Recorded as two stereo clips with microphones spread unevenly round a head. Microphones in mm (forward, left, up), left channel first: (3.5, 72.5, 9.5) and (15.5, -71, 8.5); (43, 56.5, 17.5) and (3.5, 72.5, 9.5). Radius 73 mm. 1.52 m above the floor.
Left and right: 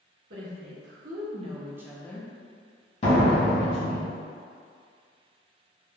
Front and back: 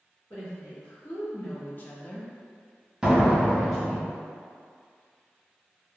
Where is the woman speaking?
70° right, 1.1 m; by 4.0 s 70° left, 1.5 m.